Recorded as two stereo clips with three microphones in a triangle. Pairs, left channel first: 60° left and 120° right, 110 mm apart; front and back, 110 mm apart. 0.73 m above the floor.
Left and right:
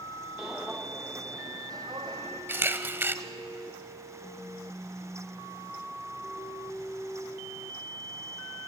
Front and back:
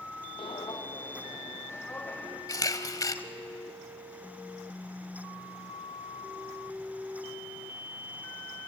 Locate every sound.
0.4 s footsteps: 35° right, 1.8 m; by 2.4 s 75° right, 3 m
2.5 s a camera shutter: 50° right, 0.9 m